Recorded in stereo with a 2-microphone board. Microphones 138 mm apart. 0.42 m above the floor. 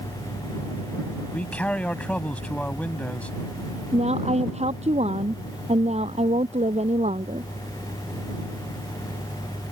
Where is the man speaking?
10° left (ahead or behind).